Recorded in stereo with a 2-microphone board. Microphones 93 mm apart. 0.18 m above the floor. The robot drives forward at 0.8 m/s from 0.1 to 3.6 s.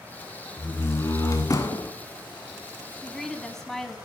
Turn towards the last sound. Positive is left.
turn(degrees=5)  # may be behind; listen again after turning